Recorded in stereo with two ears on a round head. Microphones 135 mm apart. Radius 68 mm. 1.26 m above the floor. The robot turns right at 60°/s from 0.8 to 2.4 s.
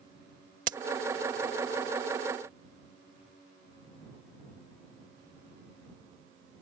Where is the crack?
60° right (ahead or behind).